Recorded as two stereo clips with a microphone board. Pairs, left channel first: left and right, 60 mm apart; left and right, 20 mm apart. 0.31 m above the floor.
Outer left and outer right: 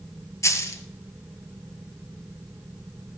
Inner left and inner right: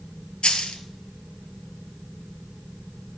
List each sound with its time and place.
0.4 s a dropped coin: 55° left (ahead or behind), 1.3 m